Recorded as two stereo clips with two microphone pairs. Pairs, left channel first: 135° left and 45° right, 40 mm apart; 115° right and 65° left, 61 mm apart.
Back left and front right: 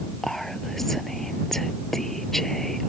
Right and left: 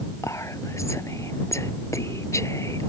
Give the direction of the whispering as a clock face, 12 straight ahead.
5 o'clock.